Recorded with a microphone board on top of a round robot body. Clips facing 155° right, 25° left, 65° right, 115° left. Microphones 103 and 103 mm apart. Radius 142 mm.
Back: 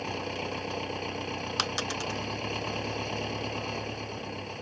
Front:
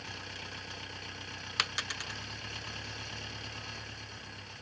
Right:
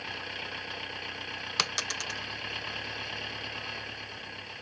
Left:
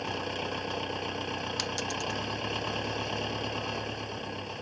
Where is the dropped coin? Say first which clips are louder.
Back 4 dB, left 3 dB; 95° right.